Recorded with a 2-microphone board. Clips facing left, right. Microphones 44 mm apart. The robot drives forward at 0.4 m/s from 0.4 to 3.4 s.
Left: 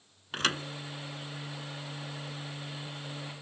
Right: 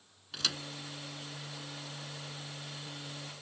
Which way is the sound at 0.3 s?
40° left (ahead or behind).